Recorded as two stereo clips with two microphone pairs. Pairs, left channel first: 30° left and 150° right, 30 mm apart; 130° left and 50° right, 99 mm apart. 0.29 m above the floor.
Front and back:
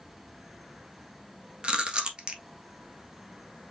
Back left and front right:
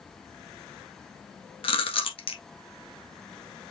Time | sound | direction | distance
1.6 | chewing | 150° left | 1.3 m